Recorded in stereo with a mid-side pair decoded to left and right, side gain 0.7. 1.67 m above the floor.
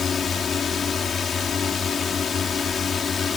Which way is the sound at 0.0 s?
30° left.